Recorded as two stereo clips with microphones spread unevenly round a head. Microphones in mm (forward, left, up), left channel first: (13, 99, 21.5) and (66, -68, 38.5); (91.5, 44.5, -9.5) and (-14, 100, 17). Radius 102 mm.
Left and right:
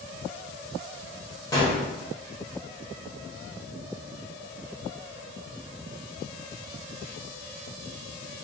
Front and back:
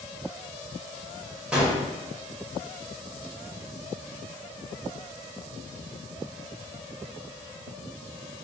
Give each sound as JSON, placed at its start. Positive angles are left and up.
{"t": 1.5, "sound": "a gunshot", "azimuth_deg": 160, "distance_m": 0.9}